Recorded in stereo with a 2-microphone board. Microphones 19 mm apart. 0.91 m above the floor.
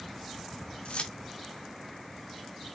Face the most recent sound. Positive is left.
turn(degrees=65)  # may be behind; listen again after turning